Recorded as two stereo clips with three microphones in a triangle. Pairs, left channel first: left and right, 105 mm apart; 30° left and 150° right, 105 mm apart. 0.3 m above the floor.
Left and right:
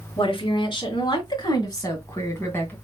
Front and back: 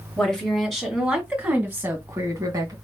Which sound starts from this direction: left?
A woman speaking, at 0.2 s.